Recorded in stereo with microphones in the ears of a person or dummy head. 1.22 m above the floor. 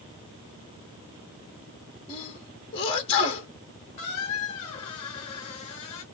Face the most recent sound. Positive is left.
turn(degrees=30)  # may be behind; listen again after turning